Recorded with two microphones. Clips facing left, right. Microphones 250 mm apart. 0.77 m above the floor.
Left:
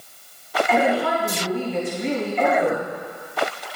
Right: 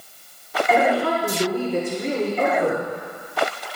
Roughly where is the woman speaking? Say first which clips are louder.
Right 1 dB; right.